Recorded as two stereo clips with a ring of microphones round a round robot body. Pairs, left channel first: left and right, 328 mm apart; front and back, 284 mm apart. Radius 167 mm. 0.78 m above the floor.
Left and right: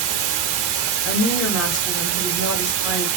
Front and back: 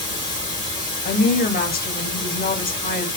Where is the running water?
100° right, 1.0 m.